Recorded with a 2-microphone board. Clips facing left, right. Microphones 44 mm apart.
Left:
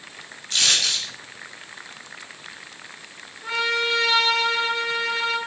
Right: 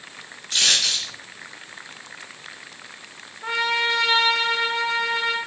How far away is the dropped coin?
About 3 m.